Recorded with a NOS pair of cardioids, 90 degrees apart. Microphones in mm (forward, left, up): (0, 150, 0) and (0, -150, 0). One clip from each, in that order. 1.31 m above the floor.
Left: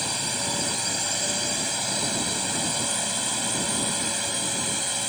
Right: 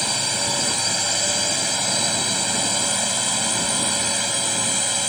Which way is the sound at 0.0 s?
35° right.